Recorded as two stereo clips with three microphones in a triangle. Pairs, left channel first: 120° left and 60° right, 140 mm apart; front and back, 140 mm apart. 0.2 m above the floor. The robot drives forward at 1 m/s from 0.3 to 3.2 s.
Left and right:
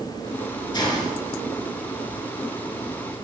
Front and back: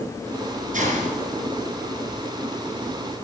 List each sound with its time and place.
0.7 s a hiss: 175° left, 2 m